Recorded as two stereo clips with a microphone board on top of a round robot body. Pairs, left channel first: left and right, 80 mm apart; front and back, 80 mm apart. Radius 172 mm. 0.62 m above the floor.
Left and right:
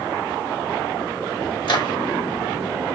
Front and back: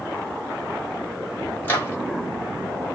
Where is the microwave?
65° left, 2 m.